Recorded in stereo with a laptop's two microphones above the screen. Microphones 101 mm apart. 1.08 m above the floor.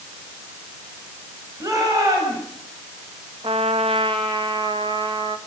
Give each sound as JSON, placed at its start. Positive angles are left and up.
{"t": 1.6, "sound": "a shout", "side_deg": -35, "distance_m": 7.0}
{"t": 3.4, "sound": "a trumpet", "side_deg": -60, "distance_m": 1.9}